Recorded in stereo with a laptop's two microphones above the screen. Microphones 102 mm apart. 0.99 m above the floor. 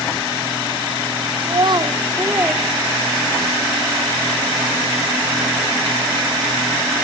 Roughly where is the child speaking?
Right.